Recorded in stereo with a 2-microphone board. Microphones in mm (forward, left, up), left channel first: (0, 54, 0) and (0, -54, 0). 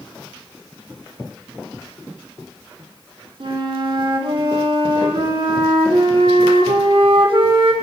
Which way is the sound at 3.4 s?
60° right (ahead or behind).